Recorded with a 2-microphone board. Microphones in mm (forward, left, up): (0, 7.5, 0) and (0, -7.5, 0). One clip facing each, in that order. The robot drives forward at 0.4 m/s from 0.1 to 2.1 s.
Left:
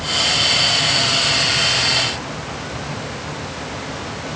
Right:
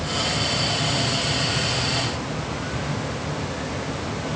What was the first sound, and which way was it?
Only background noise.